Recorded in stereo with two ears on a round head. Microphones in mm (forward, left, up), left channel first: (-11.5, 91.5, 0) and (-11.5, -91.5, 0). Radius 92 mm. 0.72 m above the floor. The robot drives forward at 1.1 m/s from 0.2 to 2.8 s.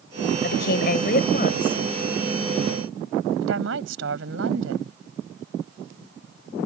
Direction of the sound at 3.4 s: 65° right (ahead or behind).